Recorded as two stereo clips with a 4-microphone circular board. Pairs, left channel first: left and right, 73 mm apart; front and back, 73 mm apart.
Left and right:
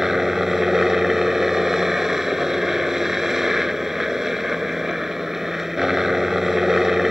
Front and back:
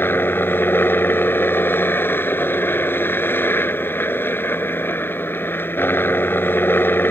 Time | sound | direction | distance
0.0 | a helicopter | 10° right | ?